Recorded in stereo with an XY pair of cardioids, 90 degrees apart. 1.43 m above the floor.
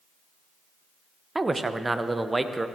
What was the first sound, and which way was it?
A man speaking, 15° right.